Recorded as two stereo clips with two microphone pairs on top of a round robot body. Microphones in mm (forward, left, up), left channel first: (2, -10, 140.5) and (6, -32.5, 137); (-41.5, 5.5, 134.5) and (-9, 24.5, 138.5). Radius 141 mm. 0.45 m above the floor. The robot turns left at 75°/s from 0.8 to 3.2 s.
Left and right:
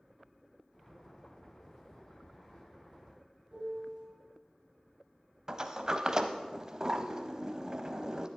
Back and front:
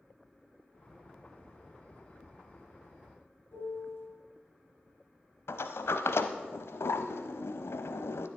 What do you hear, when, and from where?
3.5 s a piano: 135° right, 4.5 m
5.5 s a sliding door: 150° right, 0.6 m